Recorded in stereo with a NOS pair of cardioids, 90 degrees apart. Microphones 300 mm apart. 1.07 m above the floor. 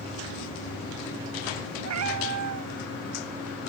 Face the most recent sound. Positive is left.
turn(degrees=-65)